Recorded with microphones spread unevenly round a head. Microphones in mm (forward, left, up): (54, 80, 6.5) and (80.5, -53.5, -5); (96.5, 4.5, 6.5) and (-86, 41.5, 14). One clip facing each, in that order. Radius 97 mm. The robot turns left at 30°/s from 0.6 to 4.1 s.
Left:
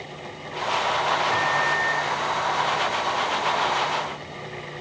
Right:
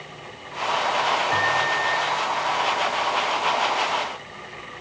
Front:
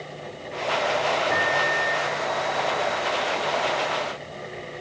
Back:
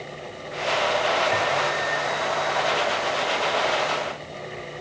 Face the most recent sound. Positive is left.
turn(degrees=-65)